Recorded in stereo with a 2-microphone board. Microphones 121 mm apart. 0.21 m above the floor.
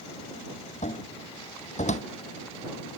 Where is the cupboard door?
75° left (ahead or behind).